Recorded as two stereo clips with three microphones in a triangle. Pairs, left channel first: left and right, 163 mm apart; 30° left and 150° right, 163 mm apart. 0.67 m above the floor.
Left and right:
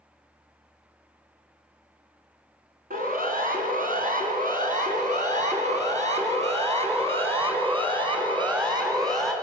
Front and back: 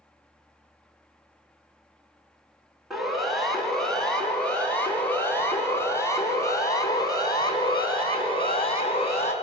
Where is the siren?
60° right, 5 m; by 9.3 s 20° right, 5 m.